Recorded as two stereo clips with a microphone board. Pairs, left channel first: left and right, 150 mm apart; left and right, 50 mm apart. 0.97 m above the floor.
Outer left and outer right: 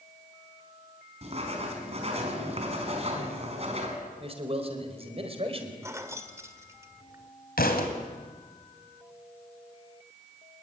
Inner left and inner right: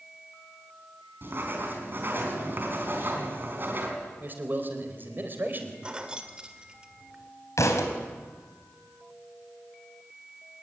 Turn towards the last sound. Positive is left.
turn(degrees=85)